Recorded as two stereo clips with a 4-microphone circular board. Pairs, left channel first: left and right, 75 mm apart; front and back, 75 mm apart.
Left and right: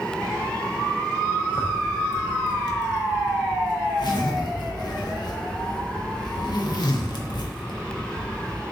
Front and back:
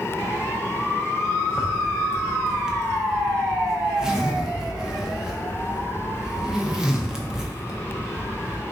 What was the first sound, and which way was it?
A zipper, 100° left.